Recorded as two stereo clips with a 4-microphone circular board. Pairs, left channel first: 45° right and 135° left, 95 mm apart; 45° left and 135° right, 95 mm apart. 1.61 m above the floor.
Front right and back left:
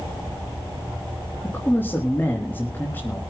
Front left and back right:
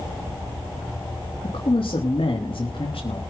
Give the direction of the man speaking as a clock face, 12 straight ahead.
11 o'clock.